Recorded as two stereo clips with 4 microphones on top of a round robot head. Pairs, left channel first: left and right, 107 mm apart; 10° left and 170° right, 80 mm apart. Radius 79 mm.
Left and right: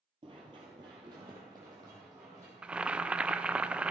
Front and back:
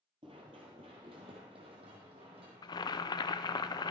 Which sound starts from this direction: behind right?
Running footsteps, at 0.2 s.